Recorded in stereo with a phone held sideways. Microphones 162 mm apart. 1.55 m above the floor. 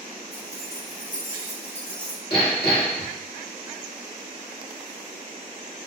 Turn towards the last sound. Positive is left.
turn(degrees=70)  # may be behind; listen again after turning